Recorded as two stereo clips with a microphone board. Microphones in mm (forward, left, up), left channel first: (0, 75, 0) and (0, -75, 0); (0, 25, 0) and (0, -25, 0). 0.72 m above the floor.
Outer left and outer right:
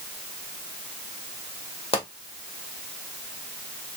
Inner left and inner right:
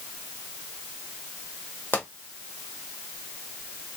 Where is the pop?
40° left (ahead or behind), 1.3 m.